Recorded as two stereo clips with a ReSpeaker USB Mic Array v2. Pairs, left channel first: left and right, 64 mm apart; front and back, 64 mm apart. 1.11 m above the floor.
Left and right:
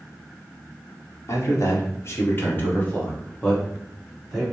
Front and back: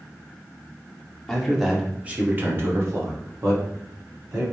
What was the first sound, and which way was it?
A man speaking, 85° left.